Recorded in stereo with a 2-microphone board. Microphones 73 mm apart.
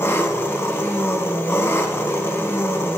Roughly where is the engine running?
Left.